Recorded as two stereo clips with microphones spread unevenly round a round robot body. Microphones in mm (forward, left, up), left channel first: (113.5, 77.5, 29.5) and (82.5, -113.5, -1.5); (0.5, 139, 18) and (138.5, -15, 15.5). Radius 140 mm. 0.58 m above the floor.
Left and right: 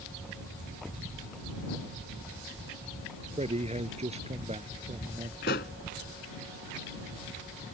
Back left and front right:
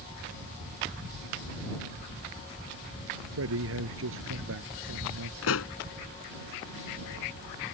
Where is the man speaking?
45° right.